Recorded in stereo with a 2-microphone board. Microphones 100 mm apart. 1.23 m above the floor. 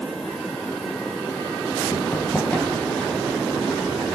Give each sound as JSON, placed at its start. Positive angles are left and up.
{"t": 1.9, "sound": "running footsteps", "side_deg": 25, "distance_m": 1.8}